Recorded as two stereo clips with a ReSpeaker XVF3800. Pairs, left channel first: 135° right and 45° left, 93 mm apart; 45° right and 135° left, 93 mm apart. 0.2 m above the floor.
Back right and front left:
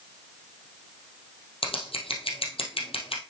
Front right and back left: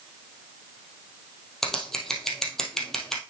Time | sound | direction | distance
1.6 | scissors | 130° right | 2.5 m